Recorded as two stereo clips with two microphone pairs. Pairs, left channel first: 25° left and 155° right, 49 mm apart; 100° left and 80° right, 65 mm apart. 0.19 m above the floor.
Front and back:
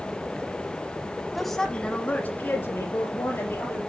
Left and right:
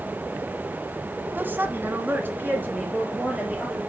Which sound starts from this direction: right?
A woman speaking, at 1.4 s.